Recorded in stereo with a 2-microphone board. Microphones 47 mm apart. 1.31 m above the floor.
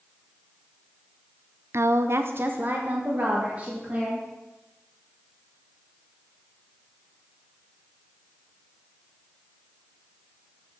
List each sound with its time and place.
1.7 s a woman speaking: 60° right (ahead or behind), 0.6 m; by 4.3 s 25° right (ahead or behind), 3 m